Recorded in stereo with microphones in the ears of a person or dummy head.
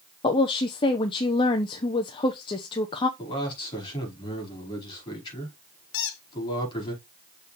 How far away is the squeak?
About 0.9 m.